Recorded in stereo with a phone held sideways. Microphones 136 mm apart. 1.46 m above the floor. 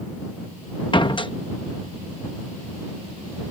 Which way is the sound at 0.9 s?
35° left (ahead or behind).